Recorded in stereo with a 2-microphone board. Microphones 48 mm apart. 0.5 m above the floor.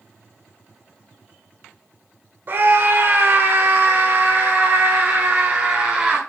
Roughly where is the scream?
Right.